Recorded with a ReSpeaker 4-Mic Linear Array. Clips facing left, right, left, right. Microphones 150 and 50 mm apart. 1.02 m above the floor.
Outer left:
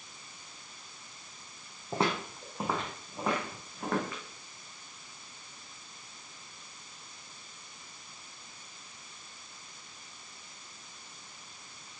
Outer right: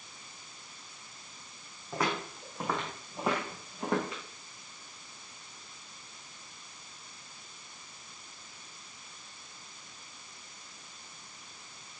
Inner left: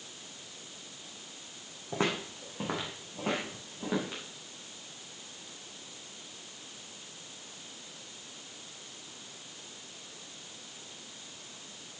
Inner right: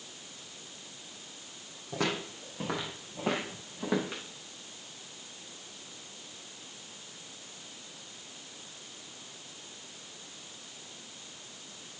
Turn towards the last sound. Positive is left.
turn(degrees=-20)  # may be behind; listen again after turning